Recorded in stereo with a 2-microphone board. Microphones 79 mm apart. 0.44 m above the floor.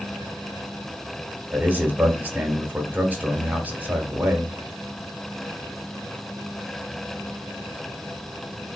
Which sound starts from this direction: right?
A man speaking, at 1.5 s.